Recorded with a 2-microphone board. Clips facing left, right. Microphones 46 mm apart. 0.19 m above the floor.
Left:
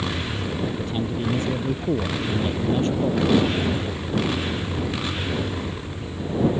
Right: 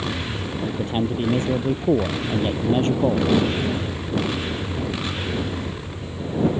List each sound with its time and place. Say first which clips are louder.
0.6 s a man speaking: right 6 dB; 40° right (ahead or behind)